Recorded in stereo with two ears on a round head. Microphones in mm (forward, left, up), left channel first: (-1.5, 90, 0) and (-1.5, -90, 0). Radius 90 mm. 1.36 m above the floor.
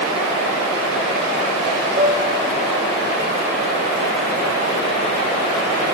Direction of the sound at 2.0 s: 45° right (ahead or behind).